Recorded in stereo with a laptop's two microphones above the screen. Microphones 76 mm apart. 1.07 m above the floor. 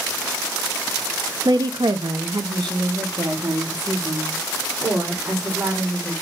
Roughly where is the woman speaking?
Right.